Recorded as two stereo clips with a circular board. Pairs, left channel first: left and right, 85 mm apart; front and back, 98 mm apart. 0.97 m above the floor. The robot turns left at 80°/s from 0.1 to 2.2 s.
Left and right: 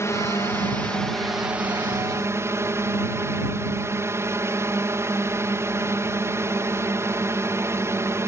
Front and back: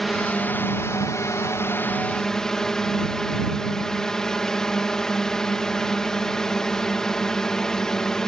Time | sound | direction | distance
0.0 | a drone | 90° left | ?